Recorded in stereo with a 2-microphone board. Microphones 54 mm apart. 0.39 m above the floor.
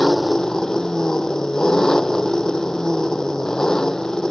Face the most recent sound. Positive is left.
turn(degrees=10)  # may be behind; listen again after turning